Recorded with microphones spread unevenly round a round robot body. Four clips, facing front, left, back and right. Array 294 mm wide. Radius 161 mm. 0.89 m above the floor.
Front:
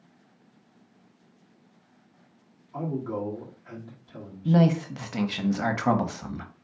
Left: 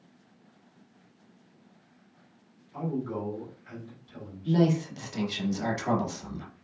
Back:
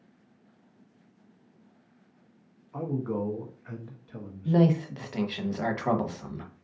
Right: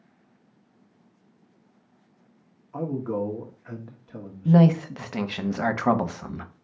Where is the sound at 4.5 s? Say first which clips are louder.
Right 6 dB, front 1 dB; 50° right, 1.0 m.